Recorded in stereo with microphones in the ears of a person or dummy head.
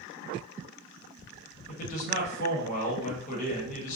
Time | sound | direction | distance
1.7 | a man speaking | 45° left (ahead or behind) | 0.9 m